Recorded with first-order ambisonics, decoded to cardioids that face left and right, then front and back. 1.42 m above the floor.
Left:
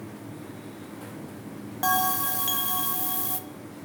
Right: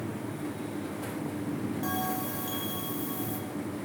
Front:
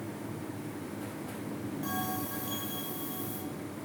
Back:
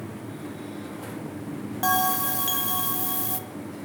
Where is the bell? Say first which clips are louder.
Left 10 dB, back 14 dB; 140° left, 1.8 m.